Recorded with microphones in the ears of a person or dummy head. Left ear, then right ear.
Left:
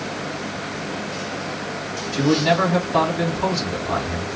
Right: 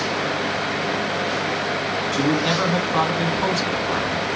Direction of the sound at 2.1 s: 40° right (ahead or behind).